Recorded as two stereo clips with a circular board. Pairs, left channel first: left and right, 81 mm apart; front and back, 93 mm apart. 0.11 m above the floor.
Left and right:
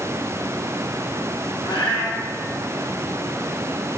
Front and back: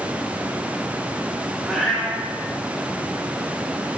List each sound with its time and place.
1.6 s a cat meowing: 90° left, 1.6 m